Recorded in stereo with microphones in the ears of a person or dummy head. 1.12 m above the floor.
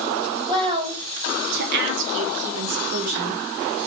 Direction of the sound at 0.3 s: 20° right (ahead or behind).